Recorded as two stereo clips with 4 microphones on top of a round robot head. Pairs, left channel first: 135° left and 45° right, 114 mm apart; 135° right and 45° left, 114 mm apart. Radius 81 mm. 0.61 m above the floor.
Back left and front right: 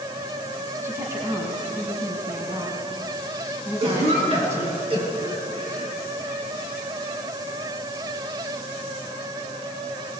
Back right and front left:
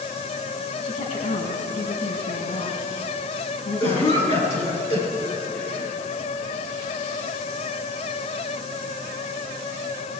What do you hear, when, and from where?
0.8 s a woman speaking: 110° right, 5 m
3.8 s a cough: 90° right, 9 m